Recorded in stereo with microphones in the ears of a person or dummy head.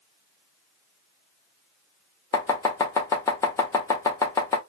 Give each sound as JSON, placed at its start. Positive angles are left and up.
{"t": 2.3, "sound": "chopping", "side_deg": 15, "distance_m": 0.7}